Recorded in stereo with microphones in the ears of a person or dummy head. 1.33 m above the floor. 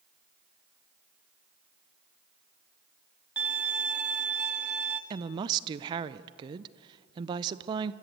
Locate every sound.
3.4 s a violin: 15° right (ahead or behind), 1.0 m
5.1 s a woman speaking: 35° right (ahead or behind), 0.6 m